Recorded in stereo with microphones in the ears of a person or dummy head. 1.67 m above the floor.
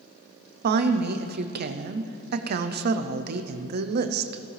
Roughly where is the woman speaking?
Right.